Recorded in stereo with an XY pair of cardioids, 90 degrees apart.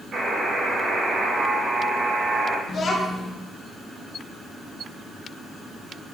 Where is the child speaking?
55° left, 1.2 m.